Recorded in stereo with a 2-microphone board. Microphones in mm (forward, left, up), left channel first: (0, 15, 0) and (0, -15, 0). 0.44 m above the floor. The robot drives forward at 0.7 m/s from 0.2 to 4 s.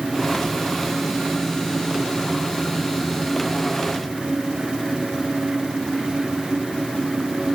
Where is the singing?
No singing in this recording.